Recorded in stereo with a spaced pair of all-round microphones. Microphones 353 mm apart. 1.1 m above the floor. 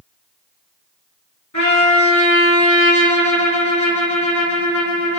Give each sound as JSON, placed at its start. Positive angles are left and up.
{"t": 1.5, "sound": "a trumpet", "side_deg": 55, "distance_m": 4.5}